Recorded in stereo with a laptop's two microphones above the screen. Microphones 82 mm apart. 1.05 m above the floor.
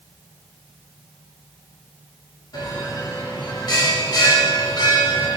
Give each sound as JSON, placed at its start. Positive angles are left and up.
{"t": 2.5, "sound": "a bell", "side_deg": 65, "distance_m": 2.0}